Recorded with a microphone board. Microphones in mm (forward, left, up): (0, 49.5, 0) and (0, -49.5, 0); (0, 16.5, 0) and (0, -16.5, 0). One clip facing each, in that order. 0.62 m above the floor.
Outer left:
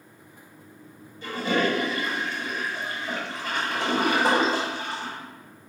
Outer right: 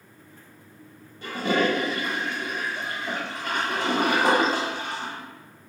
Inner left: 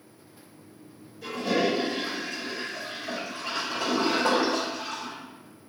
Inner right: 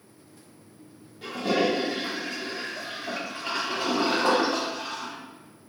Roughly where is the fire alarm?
I don't hear a fire alarm.